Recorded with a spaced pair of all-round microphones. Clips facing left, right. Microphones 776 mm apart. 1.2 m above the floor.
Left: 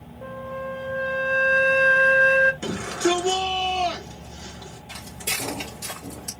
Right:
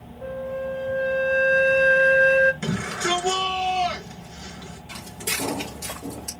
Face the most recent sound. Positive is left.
turn(degrees=-50)  # may be behind; listen again after turning